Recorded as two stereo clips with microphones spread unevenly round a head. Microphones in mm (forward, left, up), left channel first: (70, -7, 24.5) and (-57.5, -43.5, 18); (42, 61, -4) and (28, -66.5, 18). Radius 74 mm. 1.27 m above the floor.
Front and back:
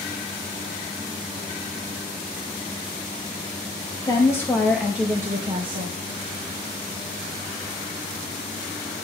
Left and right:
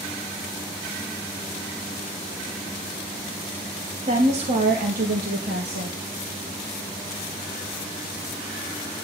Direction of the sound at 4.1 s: 50° right.